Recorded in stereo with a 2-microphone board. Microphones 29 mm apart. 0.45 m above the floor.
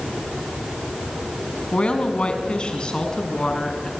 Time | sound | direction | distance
1.7 | a woman speaking | 45° left (ahead or behind) | 4 m